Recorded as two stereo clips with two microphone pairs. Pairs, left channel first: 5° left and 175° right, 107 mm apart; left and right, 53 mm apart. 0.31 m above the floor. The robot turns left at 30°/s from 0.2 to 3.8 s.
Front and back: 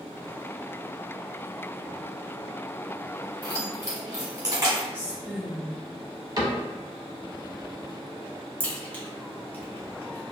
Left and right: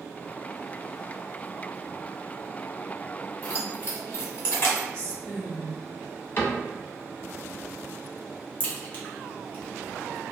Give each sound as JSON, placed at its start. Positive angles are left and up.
{"t": 3.4, "sound": "keys jangling", "azimuth_deg": 145, "distance_m": 1.2}
{"t": 4.9, "sound": "a woman speaking", "azimuth_deg": 60, "distance_m": 1.0}
{"t": 6.4, "sound": "a cupboard door", "azimuth_deg": 140, "distance_m": 0.8}
{"t": 8.6, "sound": "a crack", "azimuth_deg": 75, "distance_m": 0.9}